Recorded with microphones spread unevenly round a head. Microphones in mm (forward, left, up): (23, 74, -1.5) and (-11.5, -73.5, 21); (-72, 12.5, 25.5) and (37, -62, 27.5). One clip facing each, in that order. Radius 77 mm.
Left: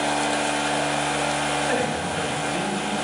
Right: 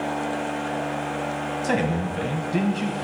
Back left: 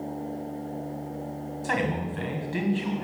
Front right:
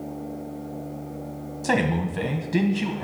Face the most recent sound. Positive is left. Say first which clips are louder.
# even, front right 5 dB
turn(degrees=-75)